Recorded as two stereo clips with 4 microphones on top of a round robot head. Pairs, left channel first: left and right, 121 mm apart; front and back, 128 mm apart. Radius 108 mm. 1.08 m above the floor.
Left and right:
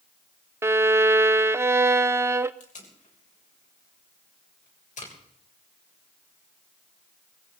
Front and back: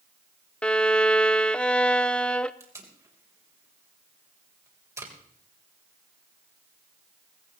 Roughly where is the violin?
Right.